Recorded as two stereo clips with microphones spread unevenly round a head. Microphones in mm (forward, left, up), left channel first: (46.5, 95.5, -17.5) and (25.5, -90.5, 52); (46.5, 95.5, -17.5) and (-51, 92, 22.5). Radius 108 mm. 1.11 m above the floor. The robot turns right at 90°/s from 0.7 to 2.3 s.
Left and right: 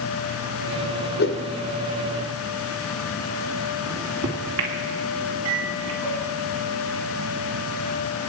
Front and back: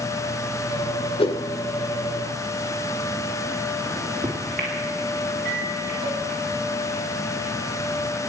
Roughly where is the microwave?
Behind right.